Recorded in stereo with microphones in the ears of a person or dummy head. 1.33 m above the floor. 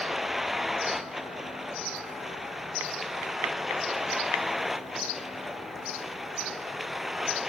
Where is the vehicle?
Centre (ahead or behind).